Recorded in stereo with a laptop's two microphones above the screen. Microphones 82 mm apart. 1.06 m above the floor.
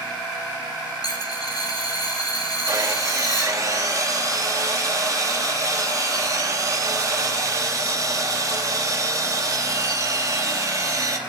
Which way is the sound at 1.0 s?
50° left (ahead or behind).